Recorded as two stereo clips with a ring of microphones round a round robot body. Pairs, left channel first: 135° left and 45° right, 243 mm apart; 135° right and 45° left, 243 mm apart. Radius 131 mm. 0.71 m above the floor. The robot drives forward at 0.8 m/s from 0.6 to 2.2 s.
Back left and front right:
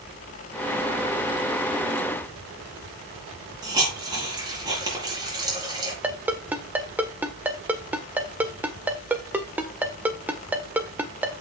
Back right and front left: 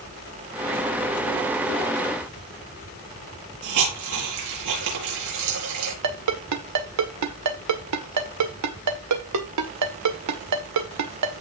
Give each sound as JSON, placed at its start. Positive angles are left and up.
{"t": 3.6, "sound": "a hiss", "azimuth_deg": 30, "distance_m": 5.0}
{"t": 6.0, "sound": "a ringtone", "azimuth_deg": 40, "distance_m": 1.5}